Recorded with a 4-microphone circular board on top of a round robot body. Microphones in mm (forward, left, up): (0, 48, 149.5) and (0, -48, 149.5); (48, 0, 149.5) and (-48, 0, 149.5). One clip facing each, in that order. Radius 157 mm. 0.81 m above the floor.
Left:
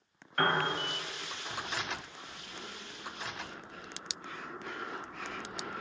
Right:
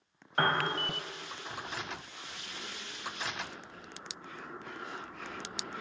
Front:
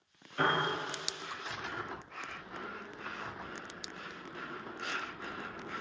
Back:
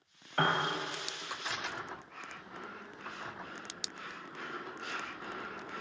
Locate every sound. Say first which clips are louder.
0.4 s a piano: even, even; 150° right, 1.0 m